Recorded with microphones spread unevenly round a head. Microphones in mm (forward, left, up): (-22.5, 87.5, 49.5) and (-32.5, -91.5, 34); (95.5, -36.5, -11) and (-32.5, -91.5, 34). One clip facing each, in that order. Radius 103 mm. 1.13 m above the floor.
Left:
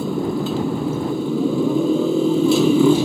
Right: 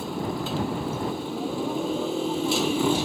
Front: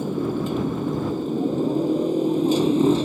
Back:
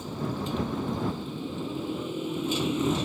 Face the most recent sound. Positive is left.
turn(degrees=95)